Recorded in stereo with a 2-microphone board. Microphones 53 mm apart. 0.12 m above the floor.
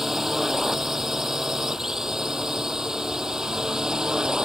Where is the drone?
10° right (ahead or behind); by 4.5 s 15° right (ahead or behind).